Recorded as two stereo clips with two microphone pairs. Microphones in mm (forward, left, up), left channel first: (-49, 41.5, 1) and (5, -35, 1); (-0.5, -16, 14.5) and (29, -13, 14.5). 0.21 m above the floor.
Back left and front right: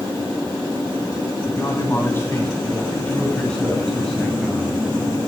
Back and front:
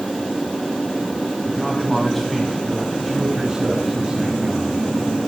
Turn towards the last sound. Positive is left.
turn(degrees=30)